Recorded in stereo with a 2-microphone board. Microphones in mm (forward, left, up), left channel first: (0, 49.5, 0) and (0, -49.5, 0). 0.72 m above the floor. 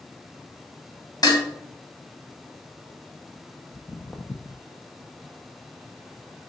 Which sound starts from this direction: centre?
Footsteps, at 3.7 s.